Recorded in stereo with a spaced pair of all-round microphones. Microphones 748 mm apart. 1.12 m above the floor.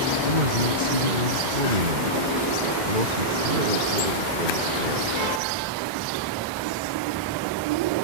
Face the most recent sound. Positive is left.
turn(degrees=-90)